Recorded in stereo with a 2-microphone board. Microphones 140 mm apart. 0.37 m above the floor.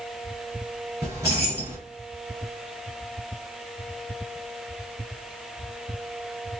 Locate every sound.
1.0 s keys jangling: 25° right (ahead or behind), 3 m